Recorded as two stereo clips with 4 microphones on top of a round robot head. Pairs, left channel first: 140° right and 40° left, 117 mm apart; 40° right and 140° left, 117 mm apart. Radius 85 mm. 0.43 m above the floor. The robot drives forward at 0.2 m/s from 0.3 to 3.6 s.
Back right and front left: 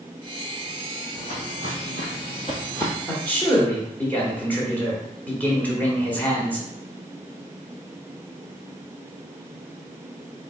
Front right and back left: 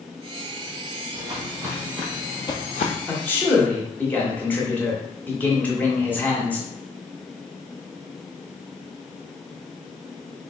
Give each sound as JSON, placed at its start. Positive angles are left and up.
{"t": 1.1, "sound": "footsteps", "azimuth_deg": -170, "distance_m": 1.1}
{"t": 3.1, "sound": "a man speaking", "azimuth_deg": -80, "distance_m": 1.2}